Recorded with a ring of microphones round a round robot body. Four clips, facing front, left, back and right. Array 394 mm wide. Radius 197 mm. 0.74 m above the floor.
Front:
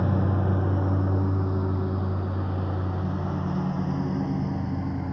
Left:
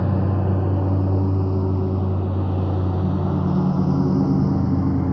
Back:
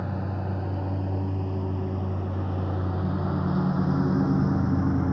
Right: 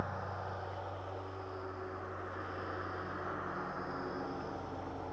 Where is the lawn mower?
65° left; by 5.1 s 105° left.